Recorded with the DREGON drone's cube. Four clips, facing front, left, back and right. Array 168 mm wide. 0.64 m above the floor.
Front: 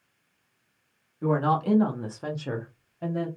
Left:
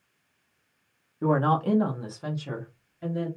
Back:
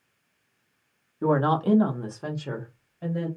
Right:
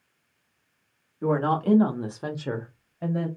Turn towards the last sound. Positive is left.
turn(degrees=-70)